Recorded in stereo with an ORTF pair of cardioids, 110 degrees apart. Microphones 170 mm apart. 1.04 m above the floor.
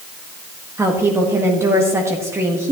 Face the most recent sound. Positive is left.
turn(degrees=-15)